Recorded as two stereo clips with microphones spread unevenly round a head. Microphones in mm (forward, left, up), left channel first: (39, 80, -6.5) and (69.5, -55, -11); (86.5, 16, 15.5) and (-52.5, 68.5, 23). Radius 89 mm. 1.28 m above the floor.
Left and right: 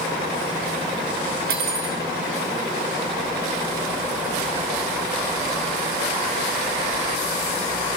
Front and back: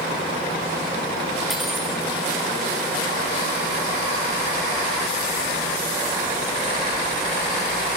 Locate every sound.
1.5 s cutlery clinking: 110° right, 1.5 m